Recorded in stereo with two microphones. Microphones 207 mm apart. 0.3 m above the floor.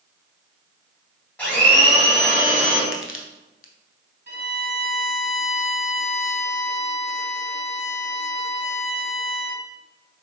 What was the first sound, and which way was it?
A blender, 5° left (ahead or behind).